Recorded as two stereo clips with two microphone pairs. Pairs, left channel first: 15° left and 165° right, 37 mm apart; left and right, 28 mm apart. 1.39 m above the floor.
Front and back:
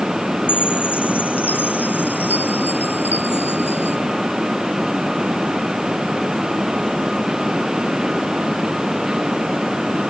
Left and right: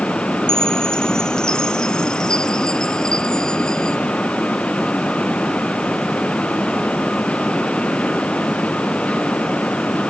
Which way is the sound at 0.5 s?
30° left.